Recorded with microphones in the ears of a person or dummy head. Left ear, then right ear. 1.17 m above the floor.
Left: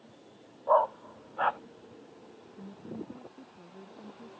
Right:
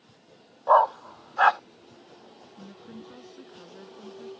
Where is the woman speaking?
70° right (ahead or behind).